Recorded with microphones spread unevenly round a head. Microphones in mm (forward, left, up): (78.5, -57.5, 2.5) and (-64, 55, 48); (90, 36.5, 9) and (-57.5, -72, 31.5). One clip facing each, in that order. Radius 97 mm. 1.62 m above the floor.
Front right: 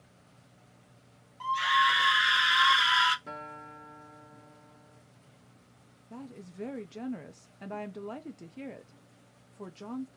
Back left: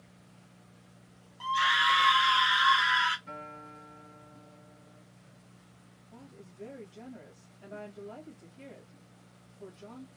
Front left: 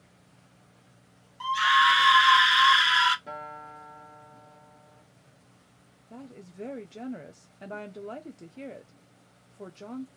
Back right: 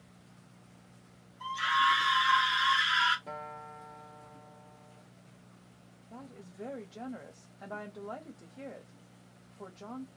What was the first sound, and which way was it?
A scream, 65° left.